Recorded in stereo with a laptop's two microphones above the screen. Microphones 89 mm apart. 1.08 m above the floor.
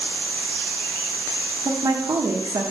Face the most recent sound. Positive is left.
turn(degrees=-55)  # may be behind; listen again after turning